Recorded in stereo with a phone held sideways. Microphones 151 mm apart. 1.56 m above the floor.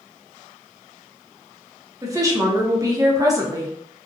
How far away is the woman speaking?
About 0.7 m.